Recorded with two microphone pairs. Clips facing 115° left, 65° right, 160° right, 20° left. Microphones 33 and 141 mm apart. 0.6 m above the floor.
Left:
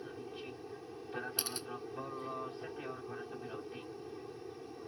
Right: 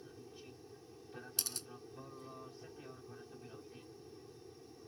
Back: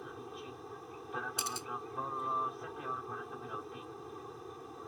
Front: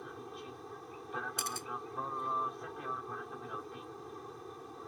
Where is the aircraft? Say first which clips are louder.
Left 9 dB, even; 110° left.